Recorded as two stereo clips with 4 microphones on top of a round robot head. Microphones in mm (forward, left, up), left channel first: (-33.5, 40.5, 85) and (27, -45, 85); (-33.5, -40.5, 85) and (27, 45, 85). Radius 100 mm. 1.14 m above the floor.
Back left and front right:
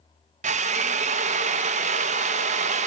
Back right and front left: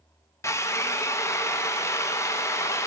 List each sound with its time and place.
0.4 s a drill: 60° right, 0.7 m